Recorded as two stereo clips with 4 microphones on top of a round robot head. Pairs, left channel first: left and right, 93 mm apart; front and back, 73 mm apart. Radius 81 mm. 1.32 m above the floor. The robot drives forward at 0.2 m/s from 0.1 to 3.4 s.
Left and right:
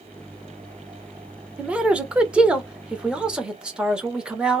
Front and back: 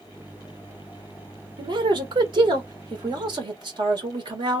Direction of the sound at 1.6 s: 170° right.